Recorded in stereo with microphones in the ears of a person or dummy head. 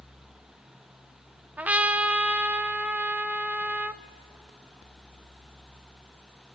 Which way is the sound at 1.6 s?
5° right (ahead or behind).